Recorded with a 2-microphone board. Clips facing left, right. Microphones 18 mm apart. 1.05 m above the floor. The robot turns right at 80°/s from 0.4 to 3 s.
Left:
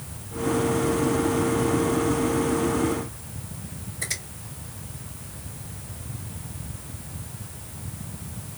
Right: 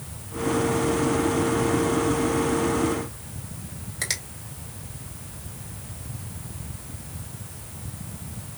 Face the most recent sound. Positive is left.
turn(degrees=-65)  # may be behind; listen again after turning